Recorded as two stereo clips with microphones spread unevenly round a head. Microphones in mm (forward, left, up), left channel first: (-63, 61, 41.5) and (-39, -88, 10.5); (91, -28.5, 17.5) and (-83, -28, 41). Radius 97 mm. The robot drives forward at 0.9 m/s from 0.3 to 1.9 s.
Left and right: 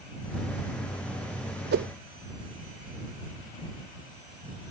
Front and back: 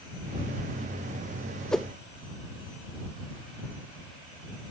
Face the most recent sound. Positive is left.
turn(degrees=-105)